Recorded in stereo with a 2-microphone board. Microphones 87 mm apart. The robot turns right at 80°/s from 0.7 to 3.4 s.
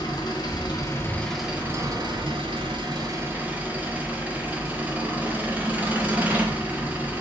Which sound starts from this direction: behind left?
An engine running, at 0.0 s.